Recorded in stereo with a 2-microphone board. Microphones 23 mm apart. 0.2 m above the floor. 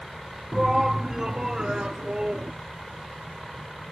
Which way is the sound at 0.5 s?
10° right (ahead or behind).